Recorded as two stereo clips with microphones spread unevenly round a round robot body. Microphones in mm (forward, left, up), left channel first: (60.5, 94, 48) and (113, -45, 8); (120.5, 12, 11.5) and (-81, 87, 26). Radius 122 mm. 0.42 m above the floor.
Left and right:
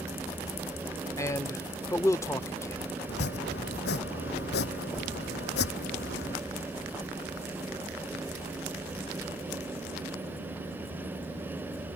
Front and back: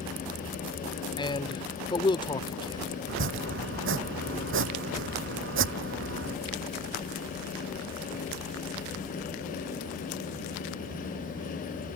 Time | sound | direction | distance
1.2 | a man speaking | 30° left | ?
3.1 | chopping | 130° left | ?